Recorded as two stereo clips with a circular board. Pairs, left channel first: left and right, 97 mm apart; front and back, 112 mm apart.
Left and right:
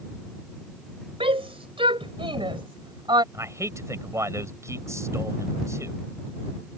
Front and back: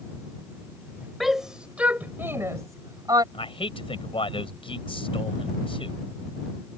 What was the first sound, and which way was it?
A shout, 90° right.